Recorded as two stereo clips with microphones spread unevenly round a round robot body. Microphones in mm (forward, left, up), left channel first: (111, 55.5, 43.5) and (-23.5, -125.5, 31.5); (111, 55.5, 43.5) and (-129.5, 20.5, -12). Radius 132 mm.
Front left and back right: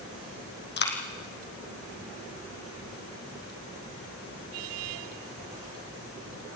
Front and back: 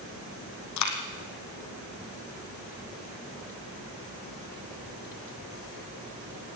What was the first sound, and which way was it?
A dropped coin, 10° left.